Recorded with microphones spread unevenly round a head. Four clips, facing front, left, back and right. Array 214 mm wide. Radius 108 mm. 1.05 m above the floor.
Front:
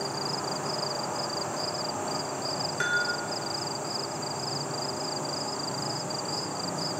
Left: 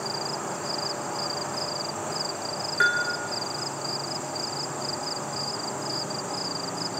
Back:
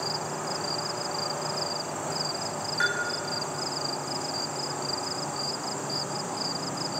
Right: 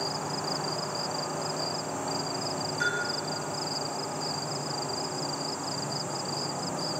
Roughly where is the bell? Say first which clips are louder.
Left 8 dB, even; ahead left.